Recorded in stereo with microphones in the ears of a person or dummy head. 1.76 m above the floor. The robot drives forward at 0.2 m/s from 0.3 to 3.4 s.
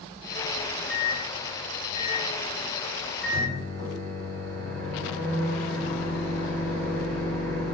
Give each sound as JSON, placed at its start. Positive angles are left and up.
{"t": 0.6, "sound": "a microwave", "side_deg": 5, "distance_m": 0.6}